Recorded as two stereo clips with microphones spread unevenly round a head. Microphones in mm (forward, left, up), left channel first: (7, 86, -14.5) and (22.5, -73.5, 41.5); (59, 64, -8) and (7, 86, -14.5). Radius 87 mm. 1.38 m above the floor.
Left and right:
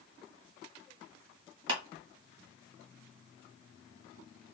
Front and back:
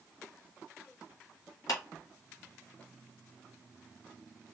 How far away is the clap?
About 1.4 m.